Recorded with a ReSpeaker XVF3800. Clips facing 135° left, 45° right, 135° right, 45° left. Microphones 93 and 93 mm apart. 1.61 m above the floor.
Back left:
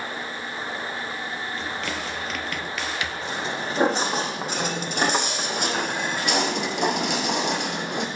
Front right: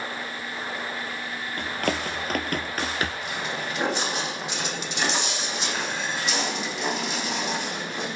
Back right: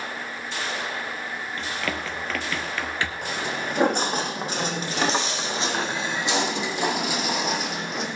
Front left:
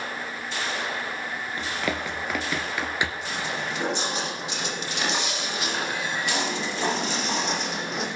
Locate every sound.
1.6 s running footsteps: 30° right, 2.5 m; by 3.1 s 20° right, 2.0 m
3.2 s footsteps: 170° right, 5 m; by 8.1 s 135° left, 4 m